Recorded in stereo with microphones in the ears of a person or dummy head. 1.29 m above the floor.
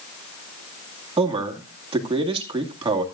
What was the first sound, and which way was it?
A man speaking, 25° right (ahead or behind).